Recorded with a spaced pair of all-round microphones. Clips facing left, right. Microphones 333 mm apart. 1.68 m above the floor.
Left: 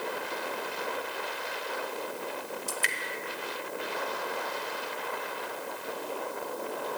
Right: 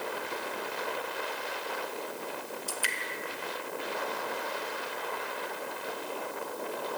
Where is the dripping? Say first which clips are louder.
Left 2 dB; 30° left (ahead or behind), 0.9 m.